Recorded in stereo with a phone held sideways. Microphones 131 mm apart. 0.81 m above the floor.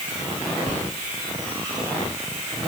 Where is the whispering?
75° right (ahead or behind), 3 m.